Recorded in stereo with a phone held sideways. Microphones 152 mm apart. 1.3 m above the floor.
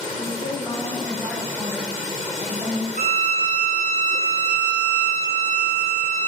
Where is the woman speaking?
40° left (ahead or behind), 0.9 m; by 2.9 s 30° right (ahead or behind), 1.6 m.